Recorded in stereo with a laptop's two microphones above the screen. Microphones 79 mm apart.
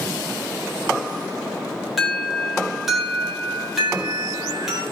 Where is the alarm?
Centre (ahead or behind), 4 m.